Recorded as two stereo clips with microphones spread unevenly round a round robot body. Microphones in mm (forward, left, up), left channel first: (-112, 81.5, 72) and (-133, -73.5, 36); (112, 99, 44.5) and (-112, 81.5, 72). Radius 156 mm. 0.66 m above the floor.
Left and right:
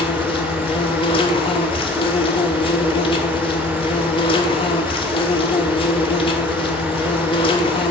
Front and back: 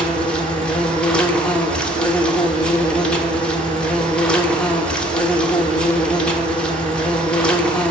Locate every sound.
0.0 s an insect: 60° left, 1.2 m